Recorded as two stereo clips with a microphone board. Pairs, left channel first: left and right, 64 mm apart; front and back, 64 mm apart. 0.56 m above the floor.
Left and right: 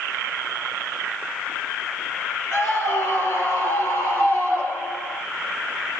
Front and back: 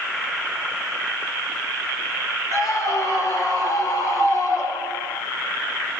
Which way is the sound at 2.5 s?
40° left.